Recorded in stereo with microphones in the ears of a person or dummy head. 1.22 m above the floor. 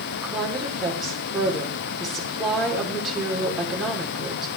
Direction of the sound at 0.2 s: 5° left (ahead or behind).